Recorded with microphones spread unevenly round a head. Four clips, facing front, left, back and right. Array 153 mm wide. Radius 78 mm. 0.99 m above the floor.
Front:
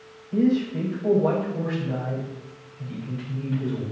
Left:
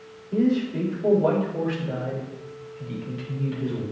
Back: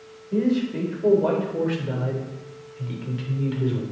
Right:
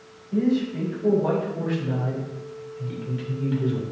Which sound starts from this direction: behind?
A man speaking, at 0.3 s.